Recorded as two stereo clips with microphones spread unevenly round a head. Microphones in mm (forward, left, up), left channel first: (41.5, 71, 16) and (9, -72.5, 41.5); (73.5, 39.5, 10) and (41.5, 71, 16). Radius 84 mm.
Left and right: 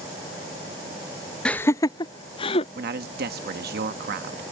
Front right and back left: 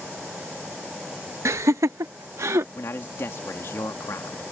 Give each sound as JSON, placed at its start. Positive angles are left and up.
{"t": 1.4, "sound": "laughter", "azimuth_deg": 155}
{"t": 2.8, "sound": "a man speaking", "azimuth_deg": -85}